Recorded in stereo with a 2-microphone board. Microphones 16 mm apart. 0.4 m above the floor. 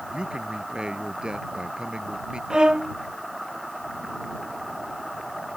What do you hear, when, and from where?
0.1 s a man speaking: 70° right (ahead or behind)
2.5 s a violin: 55° right (ahead or behind)